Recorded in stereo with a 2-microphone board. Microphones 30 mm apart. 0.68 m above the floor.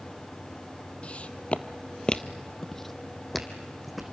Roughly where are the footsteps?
Left.